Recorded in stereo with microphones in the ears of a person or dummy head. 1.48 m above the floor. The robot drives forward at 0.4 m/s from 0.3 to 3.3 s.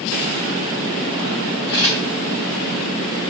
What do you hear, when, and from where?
1.7 s a camera shutter: 20° left (ahead or behind), 3.5 m